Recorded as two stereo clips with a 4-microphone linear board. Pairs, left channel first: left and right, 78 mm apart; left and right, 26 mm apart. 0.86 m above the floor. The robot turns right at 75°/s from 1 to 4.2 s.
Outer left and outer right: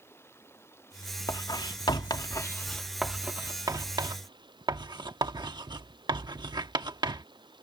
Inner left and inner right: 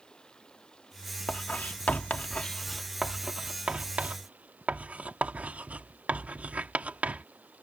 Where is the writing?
50° left (ahead or behind); by 7.2 s 75° right (ahead or behind).